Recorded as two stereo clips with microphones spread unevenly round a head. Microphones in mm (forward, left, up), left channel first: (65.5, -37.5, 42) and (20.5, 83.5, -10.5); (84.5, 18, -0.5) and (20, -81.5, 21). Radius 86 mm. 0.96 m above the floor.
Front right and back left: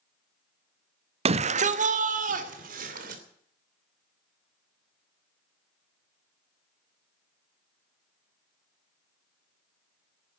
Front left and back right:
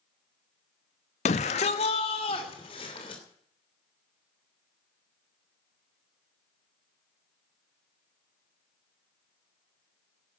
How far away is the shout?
About 0.8 m.